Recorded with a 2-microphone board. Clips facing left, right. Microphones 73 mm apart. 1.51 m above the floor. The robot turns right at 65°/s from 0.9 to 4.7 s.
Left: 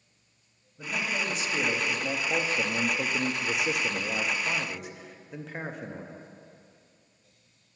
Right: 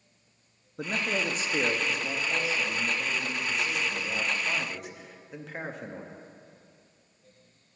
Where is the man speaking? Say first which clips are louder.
Right 2 dB; 70° right, 0.6 m; by 6.2 s 175° left, 0.6 m.